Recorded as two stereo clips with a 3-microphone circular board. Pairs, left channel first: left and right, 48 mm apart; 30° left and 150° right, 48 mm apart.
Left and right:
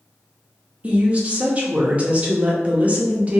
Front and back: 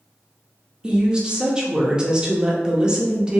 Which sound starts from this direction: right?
A woman speaking, at 0.8 s.